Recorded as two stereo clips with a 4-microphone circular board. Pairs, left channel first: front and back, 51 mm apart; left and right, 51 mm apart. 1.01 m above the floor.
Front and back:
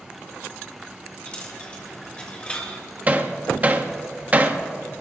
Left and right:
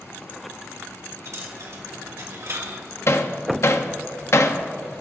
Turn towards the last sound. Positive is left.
turn(degrees=120)